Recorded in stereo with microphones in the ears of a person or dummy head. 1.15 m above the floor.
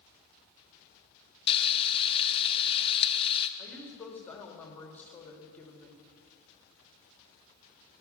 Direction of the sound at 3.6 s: 10° left (ahead or behind).